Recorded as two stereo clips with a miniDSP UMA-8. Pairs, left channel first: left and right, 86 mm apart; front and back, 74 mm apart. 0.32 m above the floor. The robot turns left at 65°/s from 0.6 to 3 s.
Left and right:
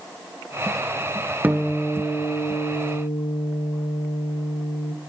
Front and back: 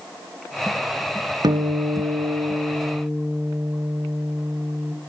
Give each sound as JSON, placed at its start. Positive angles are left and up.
{"t": 1.4, "sound": "a guitar", "azimuth_deg": -160, "distance_m": 0.9}